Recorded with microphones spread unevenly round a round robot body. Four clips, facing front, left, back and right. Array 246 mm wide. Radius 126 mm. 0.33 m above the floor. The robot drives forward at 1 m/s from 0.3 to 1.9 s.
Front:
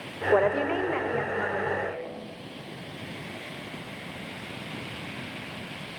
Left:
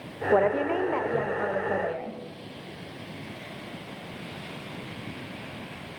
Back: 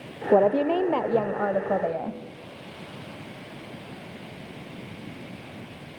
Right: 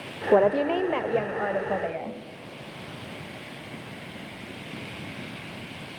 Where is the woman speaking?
120° right, 1.0 m; by 2.2 s 170° right, 2 m.